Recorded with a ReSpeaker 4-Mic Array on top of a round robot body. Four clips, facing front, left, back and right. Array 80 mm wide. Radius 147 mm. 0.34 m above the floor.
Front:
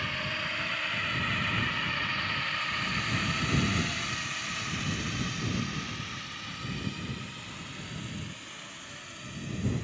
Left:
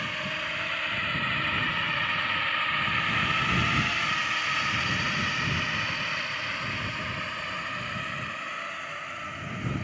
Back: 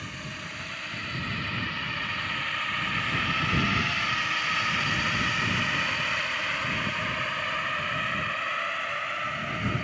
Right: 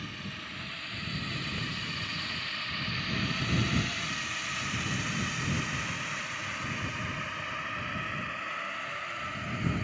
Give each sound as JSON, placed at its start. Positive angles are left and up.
{"t": 0.0, "sound": "a drone", "azimuth_deg": 70}